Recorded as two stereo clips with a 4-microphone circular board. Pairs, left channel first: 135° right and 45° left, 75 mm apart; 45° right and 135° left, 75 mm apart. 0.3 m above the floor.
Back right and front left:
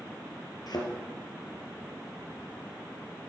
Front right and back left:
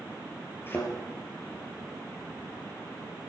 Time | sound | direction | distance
0.7 | a thud | 105° right | 3 m